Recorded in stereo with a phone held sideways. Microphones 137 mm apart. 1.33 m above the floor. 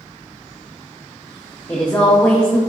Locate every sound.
1.7 s a woman speaking: 10° left (ahead or behind), 0.6 m